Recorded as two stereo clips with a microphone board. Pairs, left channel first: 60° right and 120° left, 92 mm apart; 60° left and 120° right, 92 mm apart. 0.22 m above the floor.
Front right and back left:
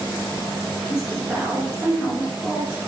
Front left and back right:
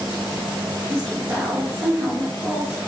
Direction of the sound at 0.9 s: 160° right.